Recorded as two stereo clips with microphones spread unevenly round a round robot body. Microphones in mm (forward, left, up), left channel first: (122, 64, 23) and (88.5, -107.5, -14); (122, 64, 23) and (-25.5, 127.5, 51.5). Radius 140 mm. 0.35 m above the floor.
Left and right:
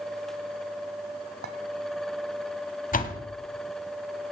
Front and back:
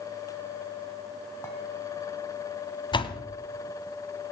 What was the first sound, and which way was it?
A clink, 100° right.